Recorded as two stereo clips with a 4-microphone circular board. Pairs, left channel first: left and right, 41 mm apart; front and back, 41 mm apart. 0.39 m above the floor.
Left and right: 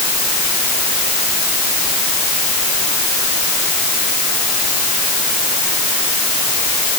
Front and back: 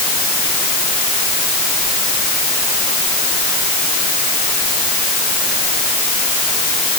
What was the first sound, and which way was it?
Only background noise.